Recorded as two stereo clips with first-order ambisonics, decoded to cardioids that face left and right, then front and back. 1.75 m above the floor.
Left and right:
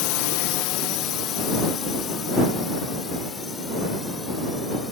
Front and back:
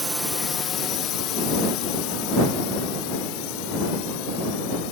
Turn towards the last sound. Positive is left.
turn(degrees=10)